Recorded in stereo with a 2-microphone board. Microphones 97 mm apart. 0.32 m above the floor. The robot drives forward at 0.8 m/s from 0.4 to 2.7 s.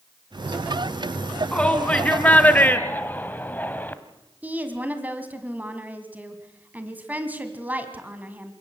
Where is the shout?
15° left (ahead or behind), 2.5 m; by 4.0 s 20° left (ahead or behind), 1.5 m.